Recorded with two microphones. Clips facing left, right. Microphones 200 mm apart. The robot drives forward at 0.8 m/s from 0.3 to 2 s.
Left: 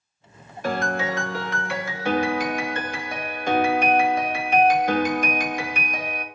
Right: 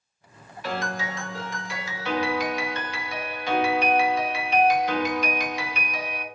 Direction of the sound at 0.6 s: 50° left (ahead or behind).